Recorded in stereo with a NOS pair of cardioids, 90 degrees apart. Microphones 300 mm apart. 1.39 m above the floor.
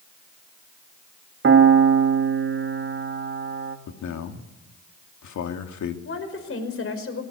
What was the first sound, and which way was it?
A piano, 40° right.